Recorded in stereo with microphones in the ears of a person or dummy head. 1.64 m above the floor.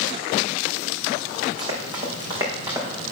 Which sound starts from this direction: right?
Running footsteps, at 1.6 s.